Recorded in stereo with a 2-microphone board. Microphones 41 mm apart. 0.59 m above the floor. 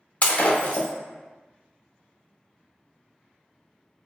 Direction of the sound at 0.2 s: 35° left (ahead or behind).